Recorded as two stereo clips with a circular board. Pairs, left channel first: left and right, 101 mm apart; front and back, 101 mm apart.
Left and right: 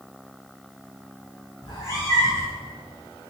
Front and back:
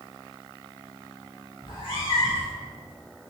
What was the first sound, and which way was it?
A cat meowing, 30° left.